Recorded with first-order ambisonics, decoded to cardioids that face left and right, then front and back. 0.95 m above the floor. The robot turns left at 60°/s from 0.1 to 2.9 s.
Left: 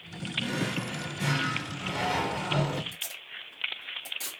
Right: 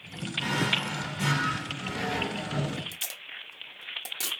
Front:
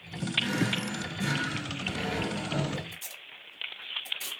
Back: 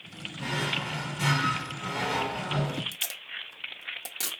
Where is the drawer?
110° right, 1.5 m; by 2.8 s 105° left, 1.5 m.